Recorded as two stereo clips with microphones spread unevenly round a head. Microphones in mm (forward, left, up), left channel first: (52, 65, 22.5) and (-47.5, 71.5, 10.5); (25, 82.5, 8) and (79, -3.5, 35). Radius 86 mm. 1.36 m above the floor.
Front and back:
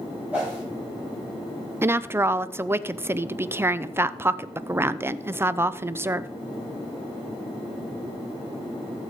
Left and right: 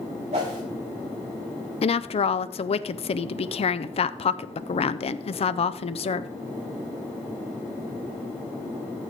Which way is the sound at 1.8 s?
110° left.